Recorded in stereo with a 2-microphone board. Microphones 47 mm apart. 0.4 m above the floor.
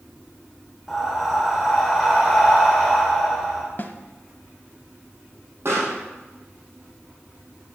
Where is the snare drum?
45° left (ahead or behind), 0.6 m.